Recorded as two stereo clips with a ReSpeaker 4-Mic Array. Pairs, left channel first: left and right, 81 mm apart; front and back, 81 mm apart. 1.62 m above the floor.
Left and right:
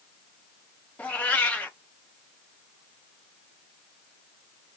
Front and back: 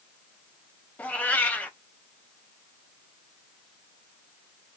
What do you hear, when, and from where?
1.0 s a cat meowing: 45° left, 0.8 m